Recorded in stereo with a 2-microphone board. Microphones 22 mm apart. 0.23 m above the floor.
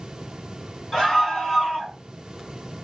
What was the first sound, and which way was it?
A scream, 5° left (ahead or behind).